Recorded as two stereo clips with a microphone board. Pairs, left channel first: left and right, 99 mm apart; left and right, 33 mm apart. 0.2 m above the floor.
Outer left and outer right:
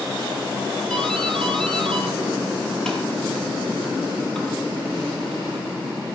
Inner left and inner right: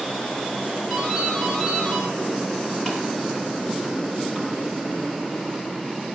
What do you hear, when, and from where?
0.9 s a doorbell: 5° left (ahead or behind), 6 m